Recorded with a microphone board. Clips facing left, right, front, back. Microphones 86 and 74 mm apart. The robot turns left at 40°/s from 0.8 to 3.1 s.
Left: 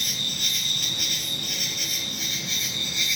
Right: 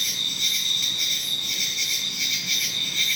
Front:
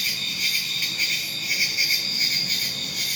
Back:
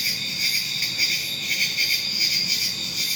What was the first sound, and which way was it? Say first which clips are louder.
An insect: even, even; 115° left.